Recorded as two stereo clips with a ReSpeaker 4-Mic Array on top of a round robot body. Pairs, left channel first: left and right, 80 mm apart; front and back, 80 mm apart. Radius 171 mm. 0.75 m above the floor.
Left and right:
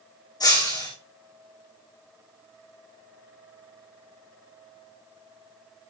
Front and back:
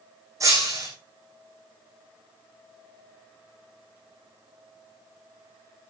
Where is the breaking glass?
130° left, 6.5 m.